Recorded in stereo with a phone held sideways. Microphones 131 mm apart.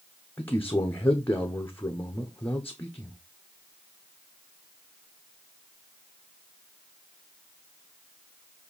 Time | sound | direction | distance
0.4 | a man speaking | 15° left (ahead or behind) | 0.9 m